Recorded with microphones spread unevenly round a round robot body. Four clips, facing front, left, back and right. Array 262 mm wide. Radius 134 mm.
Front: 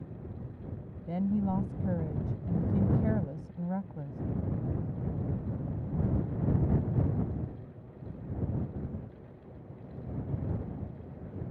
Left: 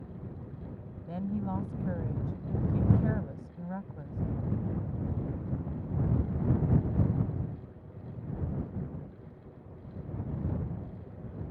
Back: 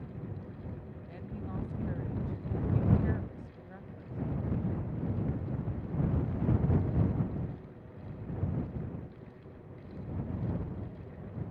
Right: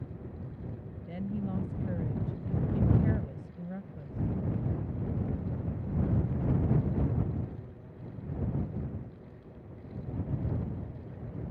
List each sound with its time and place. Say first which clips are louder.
1.1 s a woman speaking: left 2 dB, front 13 dB; 5° left